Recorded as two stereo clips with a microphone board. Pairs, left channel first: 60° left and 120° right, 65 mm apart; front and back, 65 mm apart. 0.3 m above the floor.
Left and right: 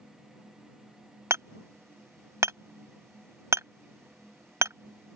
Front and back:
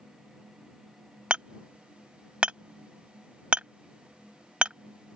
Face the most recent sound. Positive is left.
turn(degrees=-115)